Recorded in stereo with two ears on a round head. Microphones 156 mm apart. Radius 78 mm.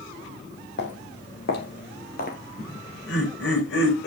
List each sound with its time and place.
0.8 s footsteps: 70° left (ahead or behind), 3 m; by 2.4 s 50° left (ahead or behind), 1.6 m
2.6 s laughter: 80° left, 4 m